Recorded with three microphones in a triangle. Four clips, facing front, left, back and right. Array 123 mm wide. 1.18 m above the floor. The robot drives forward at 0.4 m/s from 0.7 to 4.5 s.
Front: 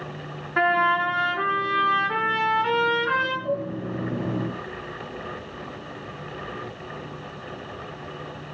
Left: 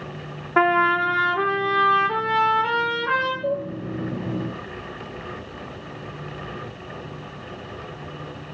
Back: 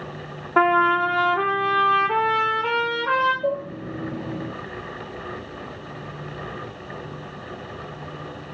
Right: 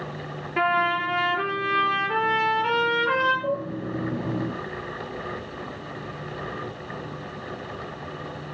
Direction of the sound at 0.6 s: 155° left.